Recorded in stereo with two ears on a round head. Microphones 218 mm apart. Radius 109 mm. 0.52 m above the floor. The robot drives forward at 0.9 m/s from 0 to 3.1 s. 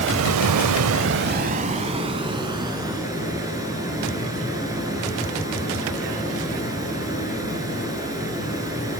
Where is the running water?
50° right (ahead or behind), 0.8 m; by 9.0 s 15° right (ahead or behind), 2.5 m.